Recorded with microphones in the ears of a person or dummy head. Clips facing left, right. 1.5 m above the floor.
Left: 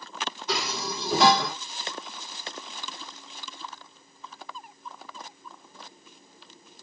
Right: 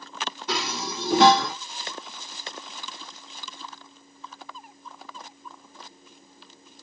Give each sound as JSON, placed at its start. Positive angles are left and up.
{"t": 0.5, "sound": "dishes clattering", "side_deg": -50, "distance_m": 1.0}